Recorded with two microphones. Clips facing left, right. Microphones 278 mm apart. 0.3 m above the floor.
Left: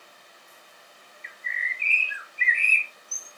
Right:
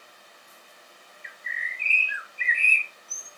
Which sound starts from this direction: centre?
A bird, at 1.2 s.